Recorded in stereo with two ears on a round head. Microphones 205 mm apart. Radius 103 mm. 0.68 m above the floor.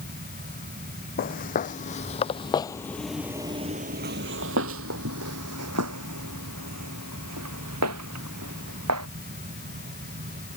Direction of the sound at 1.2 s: 40° left (ahead or behind).